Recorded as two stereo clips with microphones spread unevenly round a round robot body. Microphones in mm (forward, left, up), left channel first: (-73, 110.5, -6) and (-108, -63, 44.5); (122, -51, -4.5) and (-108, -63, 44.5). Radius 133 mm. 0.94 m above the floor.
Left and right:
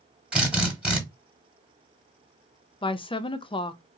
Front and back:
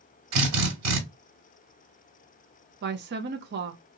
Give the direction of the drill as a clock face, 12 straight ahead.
6 o'clock.